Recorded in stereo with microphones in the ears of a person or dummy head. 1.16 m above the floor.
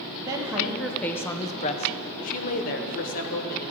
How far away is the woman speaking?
About 0.8 m.